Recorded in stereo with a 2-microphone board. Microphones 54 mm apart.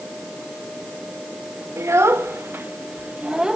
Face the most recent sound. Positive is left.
turn(degrees=-10)  # may be behind; listen again after turning